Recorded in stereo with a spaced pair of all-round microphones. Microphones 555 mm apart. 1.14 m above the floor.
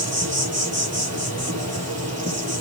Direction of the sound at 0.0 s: 25° right (ahead or behind).